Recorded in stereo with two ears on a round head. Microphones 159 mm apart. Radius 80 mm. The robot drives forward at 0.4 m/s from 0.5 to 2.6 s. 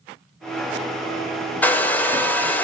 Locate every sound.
1.6 s a hair dryer: 10° left (ahead or behind), 0.6 m